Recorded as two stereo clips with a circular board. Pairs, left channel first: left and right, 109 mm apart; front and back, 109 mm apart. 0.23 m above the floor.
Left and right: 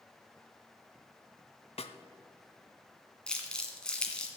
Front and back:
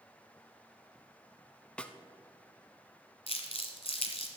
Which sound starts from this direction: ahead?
Crumpling, at 3.3 s.